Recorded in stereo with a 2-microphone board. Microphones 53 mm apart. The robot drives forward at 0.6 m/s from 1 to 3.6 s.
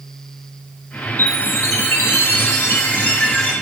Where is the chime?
45° left (ahead or behind), 0.8 m; by 3.5 s 25° left (ahead or behind), 1.3 m.